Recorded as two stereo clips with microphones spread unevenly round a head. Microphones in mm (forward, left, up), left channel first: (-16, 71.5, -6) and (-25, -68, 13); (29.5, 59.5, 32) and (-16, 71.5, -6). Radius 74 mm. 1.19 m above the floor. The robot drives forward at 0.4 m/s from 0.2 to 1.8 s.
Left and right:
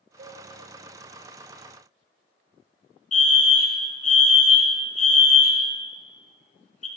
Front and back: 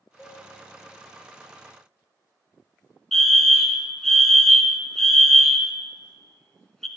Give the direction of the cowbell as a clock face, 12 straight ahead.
5 o'clock.